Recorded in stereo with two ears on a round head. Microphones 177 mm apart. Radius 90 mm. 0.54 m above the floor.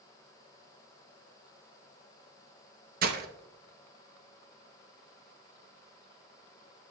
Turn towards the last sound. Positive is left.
turn(degrees=-45)  # may be behind; listen again after turning